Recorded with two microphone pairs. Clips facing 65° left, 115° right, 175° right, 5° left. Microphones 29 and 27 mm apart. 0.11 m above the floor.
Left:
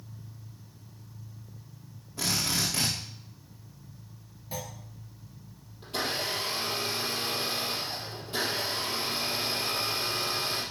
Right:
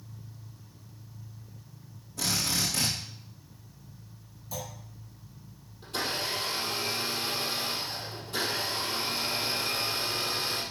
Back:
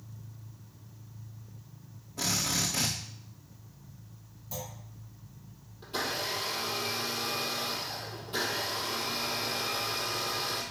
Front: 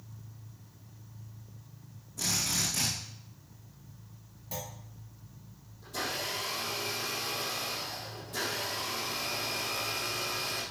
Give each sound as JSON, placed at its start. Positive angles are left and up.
{"t": 2.2, "sound": "a drill", "azimuth_deg": 125, "distance_m": 4.5}
{"t": 4.5, "sound": "a clunk", "azimuth_deg": 45, "distance_m": 2.0}
{"t": 5.8, "sound": "a blender", "azimuth_deg": 135, "distance_m": 4.5}